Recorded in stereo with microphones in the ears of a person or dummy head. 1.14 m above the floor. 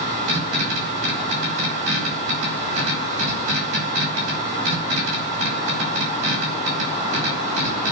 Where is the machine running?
70° right (ahead or behind), 5 m.